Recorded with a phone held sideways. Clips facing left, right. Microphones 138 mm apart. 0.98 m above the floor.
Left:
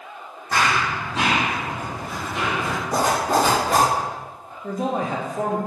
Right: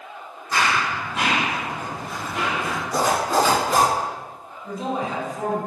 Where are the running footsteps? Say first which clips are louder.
Left 1 dB; 45° left (ahead or behind), 1.9 m; by 2.8 s 15° right (ahead or behind), 1.9 m.